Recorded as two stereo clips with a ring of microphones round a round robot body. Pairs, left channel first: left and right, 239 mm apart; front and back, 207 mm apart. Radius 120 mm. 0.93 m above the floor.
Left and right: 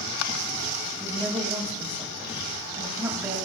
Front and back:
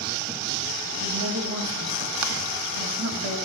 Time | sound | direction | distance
1.0 | a woman speaking | 170° right | 2 m